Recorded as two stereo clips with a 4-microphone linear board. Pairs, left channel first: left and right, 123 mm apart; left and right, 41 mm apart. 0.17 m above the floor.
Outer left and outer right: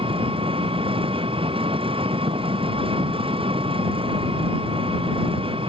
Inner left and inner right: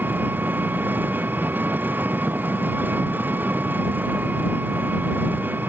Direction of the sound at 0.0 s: 45° right (ahead or behind).